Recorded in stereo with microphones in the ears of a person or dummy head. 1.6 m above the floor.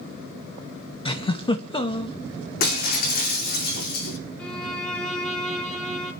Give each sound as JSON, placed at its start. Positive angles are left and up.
{"t": 1.1, "sound": "a giggle", "side_deg": 30, "distance_m": 1.8}
{"t": 2.6, "sound": "breaking glass", "side_deg": 55, "distance_m": 2.0}
{"t": 4.4, "sound": "a violin", "side_deg": 5, "distance_m": 3.0}